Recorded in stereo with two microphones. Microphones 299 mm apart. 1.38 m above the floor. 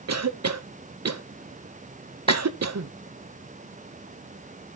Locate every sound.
0.1 s a cough: 60° right (ahead or behind), 0.6 m
2.3 s a clap: 20° left (ahead or behind), 0.9 m